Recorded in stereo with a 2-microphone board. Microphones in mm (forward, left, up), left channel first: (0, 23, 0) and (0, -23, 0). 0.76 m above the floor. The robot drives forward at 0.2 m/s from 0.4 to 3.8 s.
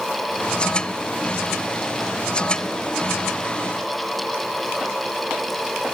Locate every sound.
Only background noise.